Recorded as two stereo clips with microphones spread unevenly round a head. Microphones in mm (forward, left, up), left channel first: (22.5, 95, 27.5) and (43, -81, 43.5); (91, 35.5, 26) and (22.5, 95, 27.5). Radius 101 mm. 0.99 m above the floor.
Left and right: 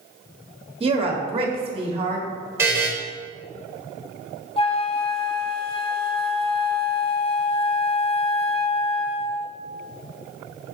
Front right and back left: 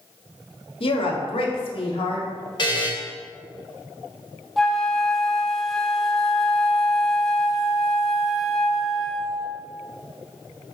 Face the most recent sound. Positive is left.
turn(degrees=45)